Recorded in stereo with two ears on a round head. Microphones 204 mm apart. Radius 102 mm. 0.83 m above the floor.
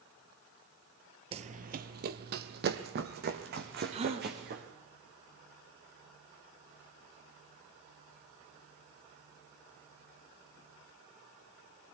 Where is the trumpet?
I don't hear a trumpet.